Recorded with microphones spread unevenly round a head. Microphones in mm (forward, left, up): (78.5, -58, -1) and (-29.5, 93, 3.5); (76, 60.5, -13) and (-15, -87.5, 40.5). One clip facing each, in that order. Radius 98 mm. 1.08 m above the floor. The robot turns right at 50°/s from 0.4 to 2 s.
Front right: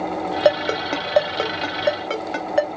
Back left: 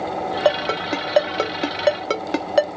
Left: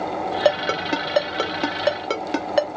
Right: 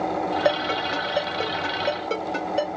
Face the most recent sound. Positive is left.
turn(degrees=85)